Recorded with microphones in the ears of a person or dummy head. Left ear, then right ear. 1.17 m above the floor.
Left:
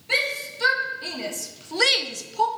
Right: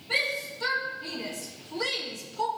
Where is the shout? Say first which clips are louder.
Left 4 dB; 70° left (ahead or behind), 2 m; by 2.5 s centre (ahead or behind), 0.5 m.